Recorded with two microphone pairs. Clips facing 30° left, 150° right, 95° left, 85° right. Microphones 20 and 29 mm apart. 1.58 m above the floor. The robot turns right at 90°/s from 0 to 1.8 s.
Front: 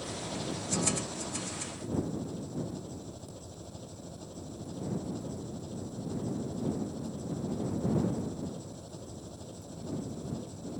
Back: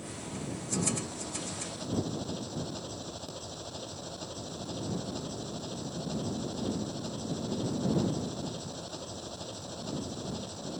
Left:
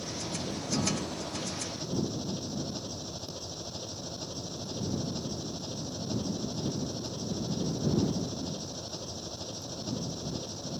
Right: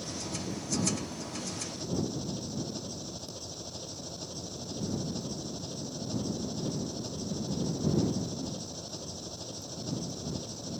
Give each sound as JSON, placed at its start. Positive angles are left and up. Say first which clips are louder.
{"t": 0.0, "sound": "an engine running", "louder": "front 3 dB, left 1 dB", "azimuth_deg": 5}